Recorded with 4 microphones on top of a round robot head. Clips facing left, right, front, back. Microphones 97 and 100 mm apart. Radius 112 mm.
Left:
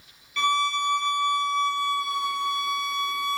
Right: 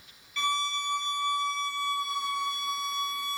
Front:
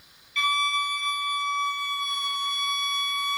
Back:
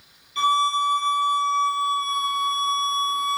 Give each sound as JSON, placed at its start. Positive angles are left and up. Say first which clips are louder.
{"t": 0.4, "sound": "a violin", "louder": "left 7 dB, back 6 dB", "azimuth_deg": 125, "distance_m": 0.7}